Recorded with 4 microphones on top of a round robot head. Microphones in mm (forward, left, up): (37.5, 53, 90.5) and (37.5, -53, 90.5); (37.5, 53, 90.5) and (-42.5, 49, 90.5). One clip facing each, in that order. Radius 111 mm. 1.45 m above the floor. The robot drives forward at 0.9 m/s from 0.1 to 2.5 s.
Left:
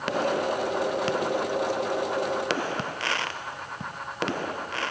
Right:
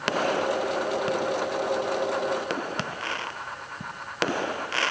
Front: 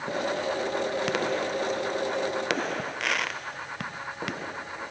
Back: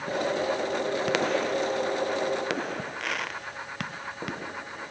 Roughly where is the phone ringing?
I don't hear a phone ringing.